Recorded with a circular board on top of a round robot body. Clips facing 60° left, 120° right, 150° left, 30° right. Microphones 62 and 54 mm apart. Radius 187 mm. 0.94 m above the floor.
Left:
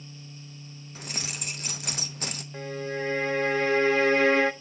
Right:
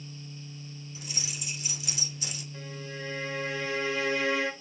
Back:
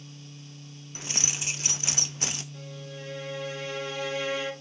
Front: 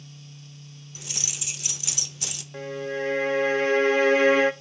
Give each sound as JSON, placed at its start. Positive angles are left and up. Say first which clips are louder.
{"t": 0.9, "sound": "keys jangling", "louder": "left 5 dB, back 4 dB", "azimuth_deg": 100, "distance_m": 0.9}
{"t": 2.5, "sound": "a violin", "louder": "left 10 dB, front 12 dB", "azimuth_deg": 10, "distance_m": 0.6}